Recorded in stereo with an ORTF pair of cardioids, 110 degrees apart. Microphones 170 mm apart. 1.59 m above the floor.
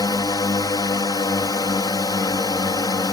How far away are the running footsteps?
No running footsteps in this recording.